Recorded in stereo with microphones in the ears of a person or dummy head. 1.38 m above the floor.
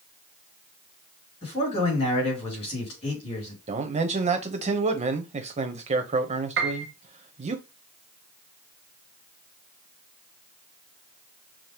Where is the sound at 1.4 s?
40° left (ahead or behind), 3.5 m.